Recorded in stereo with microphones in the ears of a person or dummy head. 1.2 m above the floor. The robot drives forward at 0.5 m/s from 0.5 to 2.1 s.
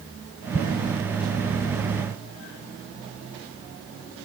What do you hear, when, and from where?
0.5 s an explosion: 15° right (ahead or behind)